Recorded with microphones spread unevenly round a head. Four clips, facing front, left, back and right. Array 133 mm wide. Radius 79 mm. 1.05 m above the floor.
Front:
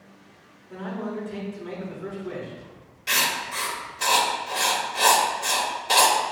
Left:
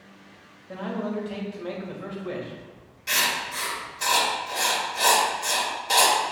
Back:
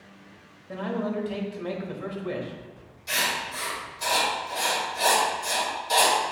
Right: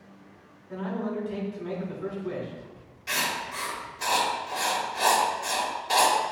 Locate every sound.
0.7 s a man speaking: 140° left, 1.9 m
3.1 s writing: 35° left, 1.7 m